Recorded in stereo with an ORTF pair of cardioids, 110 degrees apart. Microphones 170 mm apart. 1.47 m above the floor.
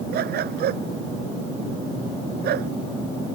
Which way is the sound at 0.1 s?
65° right.